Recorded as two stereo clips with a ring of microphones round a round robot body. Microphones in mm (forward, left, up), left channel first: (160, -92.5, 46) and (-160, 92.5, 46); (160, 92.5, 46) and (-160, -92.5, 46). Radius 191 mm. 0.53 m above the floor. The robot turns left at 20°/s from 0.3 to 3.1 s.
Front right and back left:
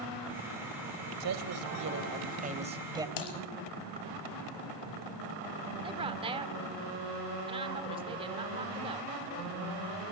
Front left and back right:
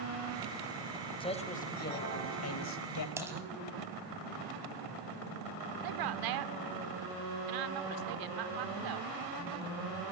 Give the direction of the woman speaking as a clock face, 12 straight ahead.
5 o'clock.